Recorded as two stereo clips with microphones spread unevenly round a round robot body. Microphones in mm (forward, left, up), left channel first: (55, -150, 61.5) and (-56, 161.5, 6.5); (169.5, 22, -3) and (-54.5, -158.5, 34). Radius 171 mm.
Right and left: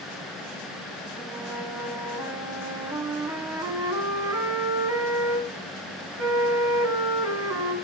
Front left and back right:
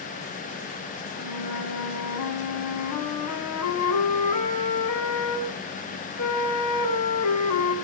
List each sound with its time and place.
1.2 s a flute: 30° left, 3.5 m